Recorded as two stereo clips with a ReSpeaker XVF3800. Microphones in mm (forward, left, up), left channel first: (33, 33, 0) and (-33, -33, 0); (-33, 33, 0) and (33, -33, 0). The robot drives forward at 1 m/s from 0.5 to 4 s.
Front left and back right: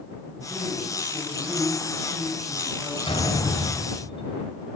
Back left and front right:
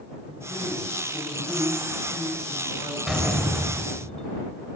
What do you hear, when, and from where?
0.3 s a man speaking: 160° left, 5.5 m; by 3.0 s 165° left, 8 m
3.1 s a door slam: 45° left, 4 m; by 4.4 s 55° left, 3.5 m